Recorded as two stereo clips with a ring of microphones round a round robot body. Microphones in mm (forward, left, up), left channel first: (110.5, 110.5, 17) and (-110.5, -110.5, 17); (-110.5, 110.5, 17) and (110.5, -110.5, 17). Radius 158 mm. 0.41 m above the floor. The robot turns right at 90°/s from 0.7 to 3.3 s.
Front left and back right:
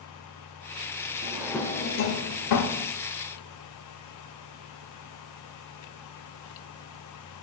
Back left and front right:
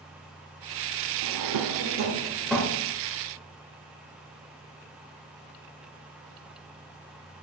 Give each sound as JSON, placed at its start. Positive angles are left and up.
{"t": 1.2, "sound": "a drawer", "azimuth_deg": -70, "distance_m": 0.7}